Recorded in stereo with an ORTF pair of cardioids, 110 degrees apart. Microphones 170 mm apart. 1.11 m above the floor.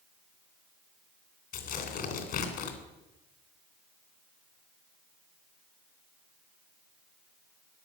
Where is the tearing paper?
70° left, 3 m.